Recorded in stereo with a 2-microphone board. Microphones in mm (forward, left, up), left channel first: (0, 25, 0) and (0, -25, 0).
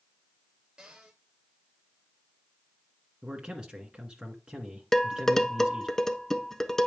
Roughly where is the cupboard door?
Centre.